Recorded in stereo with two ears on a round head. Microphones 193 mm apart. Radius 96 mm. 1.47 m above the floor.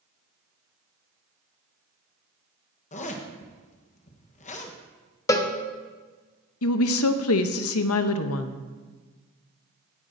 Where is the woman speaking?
70° left (ahead or behind), 0.7 m.